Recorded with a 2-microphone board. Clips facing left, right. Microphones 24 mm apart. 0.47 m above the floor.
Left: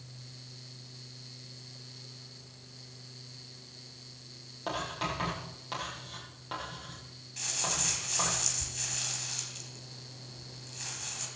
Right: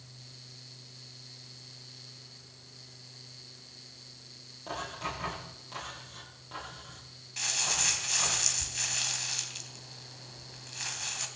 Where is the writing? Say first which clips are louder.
Left 3 dB; 35° left (ahead or behind), 10 m.